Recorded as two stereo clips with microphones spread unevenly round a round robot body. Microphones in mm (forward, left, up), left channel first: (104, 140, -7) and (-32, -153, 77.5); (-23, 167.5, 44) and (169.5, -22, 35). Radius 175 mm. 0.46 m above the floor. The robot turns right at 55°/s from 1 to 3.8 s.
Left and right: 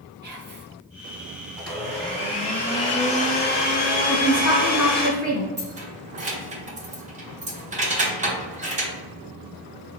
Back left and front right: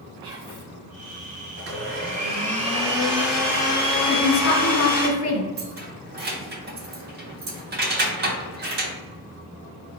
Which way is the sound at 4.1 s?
140° left.